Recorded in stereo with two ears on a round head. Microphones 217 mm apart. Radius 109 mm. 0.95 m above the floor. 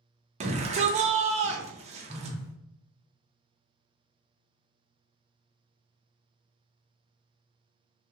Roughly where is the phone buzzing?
Centre.